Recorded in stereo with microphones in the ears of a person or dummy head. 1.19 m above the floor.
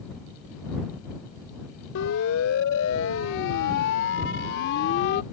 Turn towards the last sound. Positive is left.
turn(degrees=55)  # may be behind; listen again after turning